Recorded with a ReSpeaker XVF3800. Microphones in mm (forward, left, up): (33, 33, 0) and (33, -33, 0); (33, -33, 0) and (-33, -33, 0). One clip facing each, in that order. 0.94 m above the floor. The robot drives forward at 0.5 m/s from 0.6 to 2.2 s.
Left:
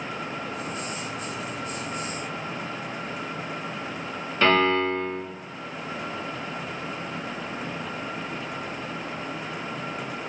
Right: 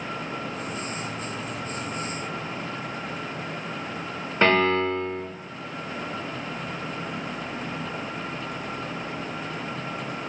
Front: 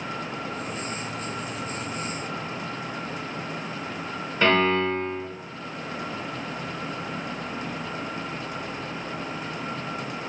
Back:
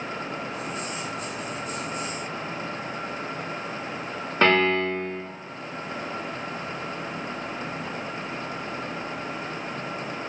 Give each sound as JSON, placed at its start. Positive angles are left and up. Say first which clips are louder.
{"t": 4.4, "sound": "a piano", "louder": "even, even", "azimuth_deg": -150, "distance_m": 1.4}